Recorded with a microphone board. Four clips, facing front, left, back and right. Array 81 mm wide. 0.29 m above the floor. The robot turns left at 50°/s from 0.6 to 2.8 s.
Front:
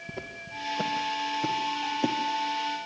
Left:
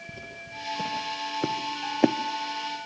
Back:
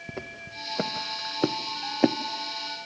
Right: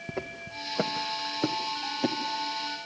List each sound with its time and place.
0.1 s footsteps: 120° right, 2 m; by 2.1 s 125° left, 1.0 m